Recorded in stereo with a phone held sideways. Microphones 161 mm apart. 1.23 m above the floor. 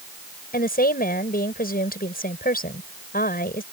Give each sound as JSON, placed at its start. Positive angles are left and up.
{"t": 0.5, "sound": "a woman speaking", "side_deg": 70}